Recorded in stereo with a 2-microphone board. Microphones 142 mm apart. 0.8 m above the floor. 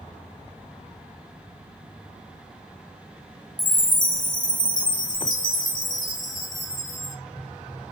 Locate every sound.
3.6 s a chime: 75° left (ahead or behind), 2 m